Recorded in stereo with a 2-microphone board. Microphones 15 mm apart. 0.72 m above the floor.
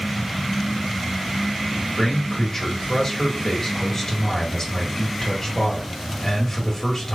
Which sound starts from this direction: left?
A man speaking, at 2.0 s.